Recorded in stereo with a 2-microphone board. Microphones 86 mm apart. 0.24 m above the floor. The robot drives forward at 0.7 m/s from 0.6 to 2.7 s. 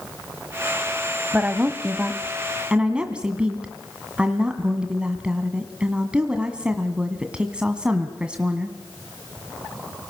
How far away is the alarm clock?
I don't hear an alarm clock.